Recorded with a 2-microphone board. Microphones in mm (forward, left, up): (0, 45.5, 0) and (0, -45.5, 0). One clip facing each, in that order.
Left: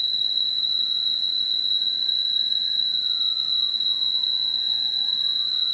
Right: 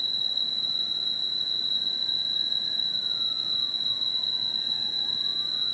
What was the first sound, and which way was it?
An insect, 10° left (ahead or behind).